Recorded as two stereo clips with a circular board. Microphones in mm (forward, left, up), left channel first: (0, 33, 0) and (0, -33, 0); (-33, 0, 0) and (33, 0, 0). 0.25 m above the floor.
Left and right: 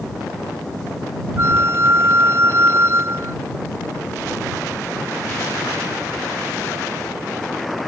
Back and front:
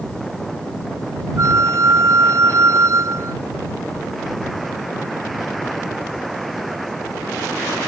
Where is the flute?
40° right.